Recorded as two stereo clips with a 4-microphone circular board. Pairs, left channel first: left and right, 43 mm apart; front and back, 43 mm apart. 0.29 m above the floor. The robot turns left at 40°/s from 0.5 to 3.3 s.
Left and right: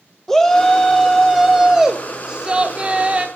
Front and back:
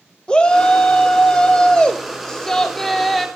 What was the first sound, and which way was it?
A shout, 20° left.